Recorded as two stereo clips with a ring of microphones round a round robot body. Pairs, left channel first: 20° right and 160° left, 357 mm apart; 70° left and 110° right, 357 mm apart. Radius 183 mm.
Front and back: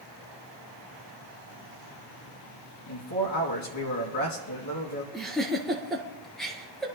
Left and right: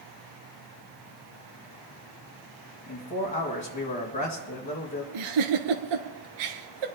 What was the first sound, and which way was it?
A man speaking, straight ahead.